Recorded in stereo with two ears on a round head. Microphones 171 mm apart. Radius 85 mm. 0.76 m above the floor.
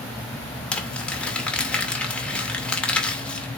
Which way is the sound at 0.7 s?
5° left (ahead or behind).